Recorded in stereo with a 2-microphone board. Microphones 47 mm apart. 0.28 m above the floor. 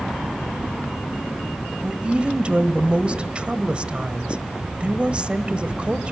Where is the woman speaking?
25° right (ahead or behind), 1.2 m.